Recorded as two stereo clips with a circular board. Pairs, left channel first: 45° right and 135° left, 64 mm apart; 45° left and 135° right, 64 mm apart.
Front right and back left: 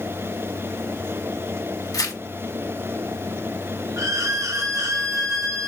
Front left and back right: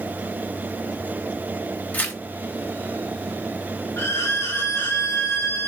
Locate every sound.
1.9 s tearing paper: 20° right, 0.8 m
4.0 s a violin: 95° left, 0.8 m